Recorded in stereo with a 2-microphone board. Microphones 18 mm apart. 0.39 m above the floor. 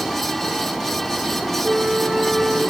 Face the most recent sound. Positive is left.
turn(degrees=-30)  # may be behind; listen again after turning